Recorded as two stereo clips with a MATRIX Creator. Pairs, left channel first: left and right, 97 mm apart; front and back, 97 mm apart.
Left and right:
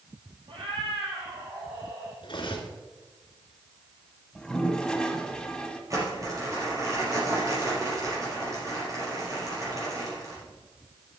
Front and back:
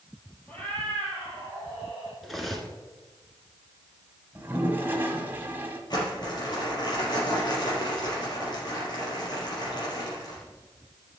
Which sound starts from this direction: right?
A cat meowing, at 0.5 s.